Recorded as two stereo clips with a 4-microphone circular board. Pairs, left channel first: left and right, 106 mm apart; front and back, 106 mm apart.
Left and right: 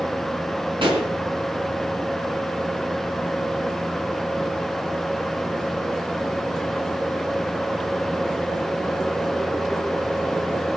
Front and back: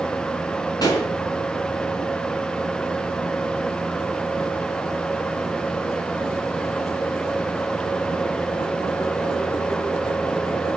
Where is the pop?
50° right, 4.5 m.